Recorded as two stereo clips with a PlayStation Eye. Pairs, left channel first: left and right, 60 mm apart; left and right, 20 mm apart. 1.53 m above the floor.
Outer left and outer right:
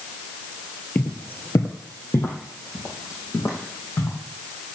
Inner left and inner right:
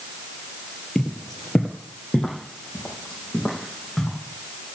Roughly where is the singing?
No singing in this recording.